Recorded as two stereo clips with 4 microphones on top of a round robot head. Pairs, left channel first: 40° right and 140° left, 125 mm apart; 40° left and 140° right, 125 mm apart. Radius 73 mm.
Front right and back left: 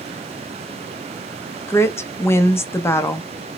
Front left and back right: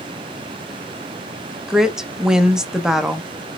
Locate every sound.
1.7 s a woman speaking: 60° right, 0.6 m